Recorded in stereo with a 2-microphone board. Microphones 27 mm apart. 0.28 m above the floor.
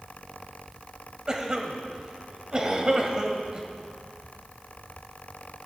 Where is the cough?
25° right (ahead or behind), 1.4 m.